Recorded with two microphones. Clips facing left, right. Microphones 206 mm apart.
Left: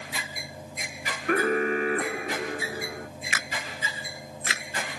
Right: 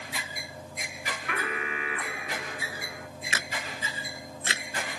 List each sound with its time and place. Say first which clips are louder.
1.3 s an alarm: left 13 dB; 45° left (ahead or behind)
3.3 s a camera shutter: right 2 dB; 30° right (ahead or behind)